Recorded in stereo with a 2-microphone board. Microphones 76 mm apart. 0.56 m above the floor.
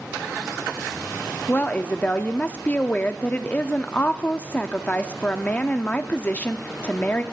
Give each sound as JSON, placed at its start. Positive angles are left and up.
{"t": 1.5, "sound": "a woman speaking", "side_deg": 20, "distance_m": 0.6}